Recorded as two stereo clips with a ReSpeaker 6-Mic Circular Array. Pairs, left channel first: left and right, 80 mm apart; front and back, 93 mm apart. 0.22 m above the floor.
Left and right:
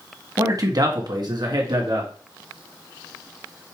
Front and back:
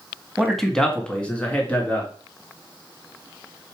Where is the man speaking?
95° right, 1.3 m; by 2.1 s 70° right, 2.5 m.